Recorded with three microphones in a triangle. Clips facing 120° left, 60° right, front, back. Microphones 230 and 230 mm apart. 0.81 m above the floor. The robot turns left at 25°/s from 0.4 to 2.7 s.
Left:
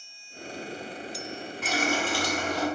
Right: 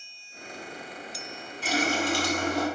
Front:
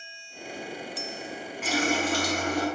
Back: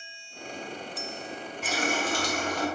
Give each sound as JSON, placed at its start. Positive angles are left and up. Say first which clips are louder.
{"t": 1.6, "sound": "a running tap", "louder": "right 2 dB, front 4 dB", "azimuth_deg": -5, "distance_m": 1.1}